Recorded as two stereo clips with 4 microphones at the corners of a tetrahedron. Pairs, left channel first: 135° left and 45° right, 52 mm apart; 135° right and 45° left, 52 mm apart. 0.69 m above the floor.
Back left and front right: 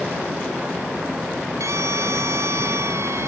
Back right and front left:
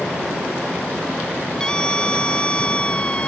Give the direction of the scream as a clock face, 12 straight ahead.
2 o'clock.